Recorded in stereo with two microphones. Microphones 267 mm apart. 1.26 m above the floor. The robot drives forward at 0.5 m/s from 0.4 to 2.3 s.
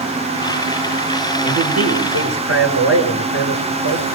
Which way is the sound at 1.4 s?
70° right (ahead or behind).